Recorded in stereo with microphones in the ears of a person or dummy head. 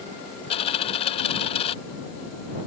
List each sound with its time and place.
0.5 s a dropped coin: 35° left (ahead or behind)